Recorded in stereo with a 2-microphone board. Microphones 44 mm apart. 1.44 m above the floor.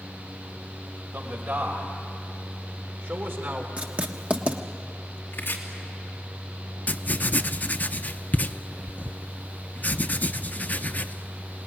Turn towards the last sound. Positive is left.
turn(degrees=40)  # may be behind; listen again after turning